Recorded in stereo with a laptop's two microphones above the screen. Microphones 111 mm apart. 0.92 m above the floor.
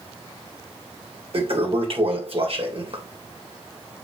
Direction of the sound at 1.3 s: 60° right (ahead or behind).